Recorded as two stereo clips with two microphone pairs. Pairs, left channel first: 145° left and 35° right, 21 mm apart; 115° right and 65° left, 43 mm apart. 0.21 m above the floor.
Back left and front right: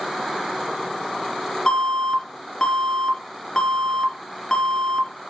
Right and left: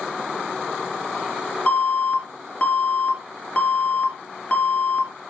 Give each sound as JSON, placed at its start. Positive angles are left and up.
{"t": 1.7, "sound": "an alarm", "azimuth_deg": -165, "distance_m": 3.5}